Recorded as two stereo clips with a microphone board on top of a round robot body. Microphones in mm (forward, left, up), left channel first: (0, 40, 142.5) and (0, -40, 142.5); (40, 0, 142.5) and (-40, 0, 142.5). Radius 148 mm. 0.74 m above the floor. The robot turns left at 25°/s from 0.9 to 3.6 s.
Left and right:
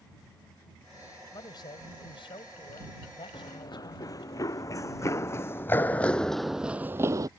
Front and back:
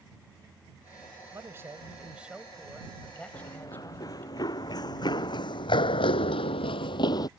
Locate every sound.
1.3 s a man speaking: 125° left; by 4.3 s 70° left
3.3 s running footsteps: 55° left; by 7.3 s 45° right